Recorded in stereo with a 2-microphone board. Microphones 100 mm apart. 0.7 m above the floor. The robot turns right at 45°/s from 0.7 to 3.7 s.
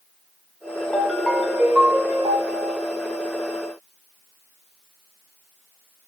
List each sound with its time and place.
0.9 s a ringtone: 160° left, 1.7 m; by 2.8 s 115° right, 1.7 m